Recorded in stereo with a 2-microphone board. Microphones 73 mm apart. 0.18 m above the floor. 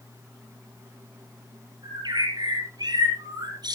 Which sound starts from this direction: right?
A bird, at 1.8 s.